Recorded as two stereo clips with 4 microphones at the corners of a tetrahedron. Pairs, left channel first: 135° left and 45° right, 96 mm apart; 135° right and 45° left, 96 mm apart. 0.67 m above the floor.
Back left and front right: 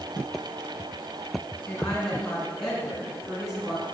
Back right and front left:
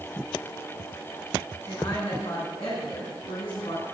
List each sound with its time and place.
1.7 s a woman speaking: 150° right, 6.5 m; by 3.8 s 130° right, 8 m